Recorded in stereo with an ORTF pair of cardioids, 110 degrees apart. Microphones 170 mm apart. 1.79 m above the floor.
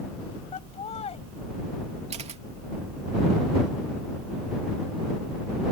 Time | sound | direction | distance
0.5 | laughter | 40° left | ?
2.1 | a camera shutter | 40° right | ?